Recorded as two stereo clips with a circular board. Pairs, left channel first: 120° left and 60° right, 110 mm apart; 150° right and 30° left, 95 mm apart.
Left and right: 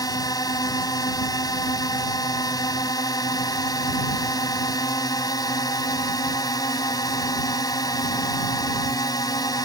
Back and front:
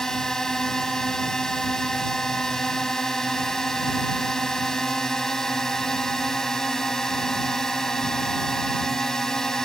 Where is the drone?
130° left.